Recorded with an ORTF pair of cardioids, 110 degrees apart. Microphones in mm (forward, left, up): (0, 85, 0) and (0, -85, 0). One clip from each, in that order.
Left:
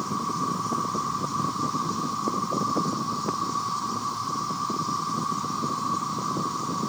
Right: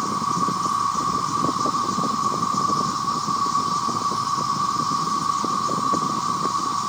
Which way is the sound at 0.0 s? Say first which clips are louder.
Right 6 dB; 40° right.